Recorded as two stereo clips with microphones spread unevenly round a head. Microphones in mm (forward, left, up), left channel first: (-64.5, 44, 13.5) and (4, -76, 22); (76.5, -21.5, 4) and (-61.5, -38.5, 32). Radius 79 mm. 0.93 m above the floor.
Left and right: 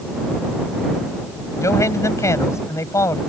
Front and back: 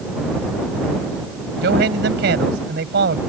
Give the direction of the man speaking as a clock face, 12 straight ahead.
6 o'clock.